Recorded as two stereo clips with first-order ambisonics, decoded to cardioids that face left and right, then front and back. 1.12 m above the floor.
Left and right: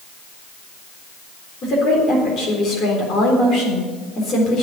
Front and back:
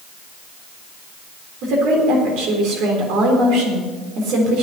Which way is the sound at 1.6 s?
145° left.